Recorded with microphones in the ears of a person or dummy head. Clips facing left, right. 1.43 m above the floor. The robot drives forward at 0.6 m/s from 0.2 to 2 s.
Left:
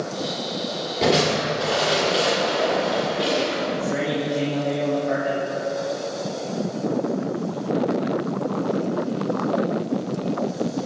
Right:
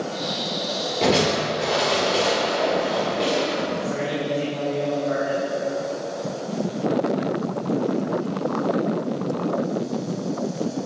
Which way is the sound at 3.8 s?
80° left.